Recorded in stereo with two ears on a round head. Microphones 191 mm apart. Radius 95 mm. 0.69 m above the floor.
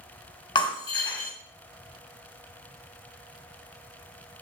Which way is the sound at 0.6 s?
20° left (ahead or behind).